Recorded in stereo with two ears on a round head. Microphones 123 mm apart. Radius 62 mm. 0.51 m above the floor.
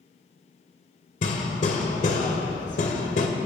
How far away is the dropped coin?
No dropped coin in this recording.